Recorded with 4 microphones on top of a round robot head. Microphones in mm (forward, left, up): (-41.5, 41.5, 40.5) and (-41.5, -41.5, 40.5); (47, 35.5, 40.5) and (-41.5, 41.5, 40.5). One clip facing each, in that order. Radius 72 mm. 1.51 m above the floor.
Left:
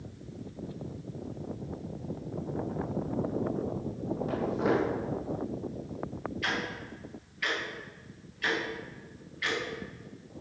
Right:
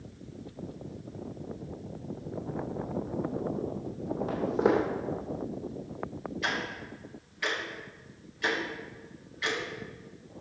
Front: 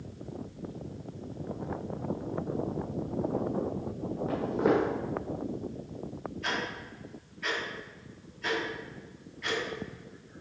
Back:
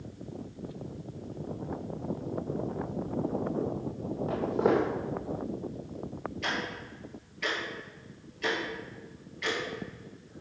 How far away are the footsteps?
About 2.5 m.